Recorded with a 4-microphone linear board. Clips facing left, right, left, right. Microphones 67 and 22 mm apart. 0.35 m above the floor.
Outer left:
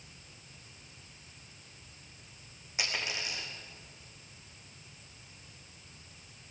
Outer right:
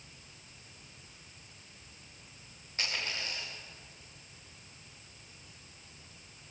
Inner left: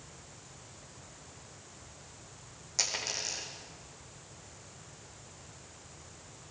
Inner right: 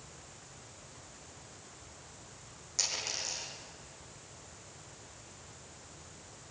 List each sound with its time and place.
2.8 s a dropped coin: 10° left (ahead or behind), 6 m